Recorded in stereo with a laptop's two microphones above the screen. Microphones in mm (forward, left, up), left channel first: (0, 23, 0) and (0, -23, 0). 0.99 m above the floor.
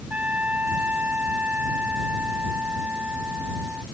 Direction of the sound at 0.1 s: 35° right (ahead or behind).